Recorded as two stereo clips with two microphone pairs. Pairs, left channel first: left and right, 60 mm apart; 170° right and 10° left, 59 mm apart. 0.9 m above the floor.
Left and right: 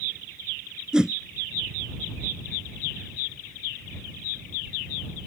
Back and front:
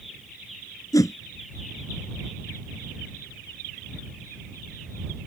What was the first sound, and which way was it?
A whoosh, 165° right.